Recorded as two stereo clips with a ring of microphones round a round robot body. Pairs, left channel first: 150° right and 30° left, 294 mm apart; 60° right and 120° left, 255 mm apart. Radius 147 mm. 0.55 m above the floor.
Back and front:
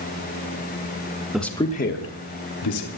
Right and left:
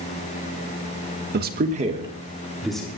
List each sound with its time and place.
1.3 s a man speaking: 115° left, 1.4 m; by 2.9 s 145° right, 2.5 m